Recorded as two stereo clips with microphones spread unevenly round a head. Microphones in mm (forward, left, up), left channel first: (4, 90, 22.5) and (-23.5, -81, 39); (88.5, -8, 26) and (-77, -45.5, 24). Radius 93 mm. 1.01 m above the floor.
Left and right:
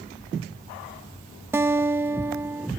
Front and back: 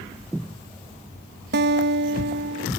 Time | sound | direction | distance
1.5 | a guitar | straight behind | ?